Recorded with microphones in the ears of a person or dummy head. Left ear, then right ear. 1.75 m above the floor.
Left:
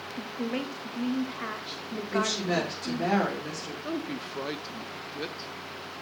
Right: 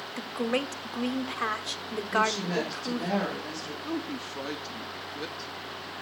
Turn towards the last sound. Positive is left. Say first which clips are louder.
# left 1 dB
turn(degrees=10)  # may be behind; listen again after turning